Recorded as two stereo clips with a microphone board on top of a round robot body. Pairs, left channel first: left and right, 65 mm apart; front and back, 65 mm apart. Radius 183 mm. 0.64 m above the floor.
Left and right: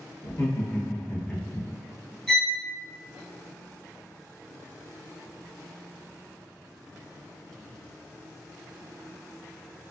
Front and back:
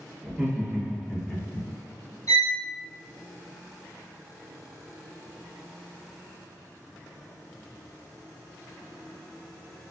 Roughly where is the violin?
Ahead.